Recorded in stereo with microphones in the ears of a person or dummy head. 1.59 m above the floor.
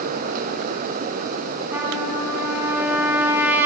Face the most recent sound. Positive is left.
turn(degrees=-10)  # may be behind; listen again after turning